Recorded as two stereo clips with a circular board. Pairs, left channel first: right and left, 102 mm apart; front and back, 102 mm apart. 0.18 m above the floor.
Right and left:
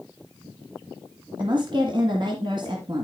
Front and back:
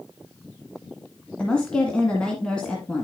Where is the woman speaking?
80° left, 1.8 m.